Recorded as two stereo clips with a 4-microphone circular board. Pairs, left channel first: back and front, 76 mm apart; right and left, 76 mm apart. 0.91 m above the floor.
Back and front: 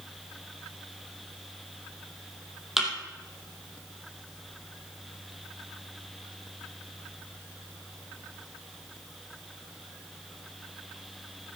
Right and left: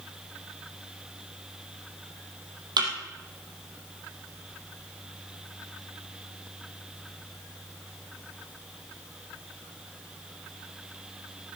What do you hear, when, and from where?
2.8 s a thud: 90° left, 3.5 m